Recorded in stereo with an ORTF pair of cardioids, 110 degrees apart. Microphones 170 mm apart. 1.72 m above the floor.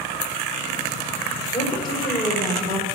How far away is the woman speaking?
About 6.5 m.